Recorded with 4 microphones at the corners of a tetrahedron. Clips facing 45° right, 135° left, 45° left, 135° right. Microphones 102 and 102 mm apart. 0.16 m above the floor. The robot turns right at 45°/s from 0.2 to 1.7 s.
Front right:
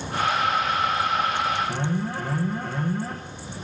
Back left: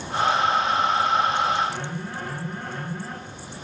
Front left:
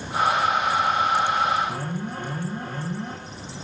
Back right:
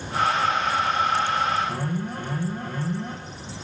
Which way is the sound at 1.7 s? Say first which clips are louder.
Front right 4 dB, back right 1 dB; 15° right.